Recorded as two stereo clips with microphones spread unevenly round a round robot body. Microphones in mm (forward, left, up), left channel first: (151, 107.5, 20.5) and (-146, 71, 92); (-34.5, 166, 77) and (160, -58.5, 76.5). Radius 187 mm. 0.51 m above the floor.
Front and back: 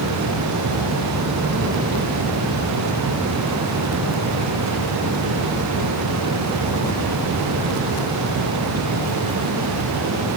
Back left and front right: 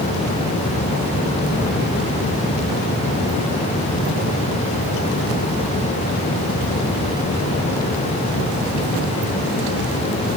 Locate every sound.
Only background noise.